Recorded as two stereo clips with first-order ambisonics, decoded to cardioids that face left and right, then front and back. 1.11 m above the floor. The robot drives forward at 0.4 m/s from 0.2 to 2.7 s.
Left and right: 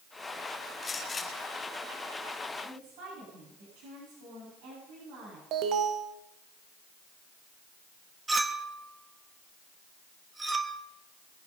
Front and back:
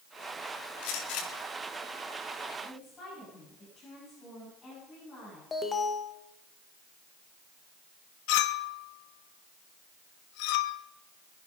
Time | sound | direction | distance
0.8 | a gunshot | 10° left | 6.5 m
2.6 | a woman speaking | 75° right | 8.5 m
5.5 | an alarm | 70° right | 1.1 m
8.3 | a clink | 10° right | 1.0 m